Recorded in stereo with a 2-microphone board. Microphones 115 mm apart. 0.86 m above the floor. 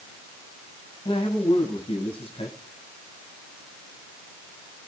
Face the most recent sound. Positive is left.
turn(degrees=55)  # may be behind; listen again after turning